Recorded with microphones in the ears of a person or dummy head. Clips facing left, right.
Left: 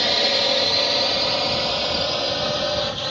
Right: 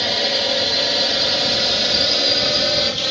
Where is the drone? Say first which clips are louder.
Even; 5° right (ahead or behind); by 3.1 s 40° right (ahead or behind).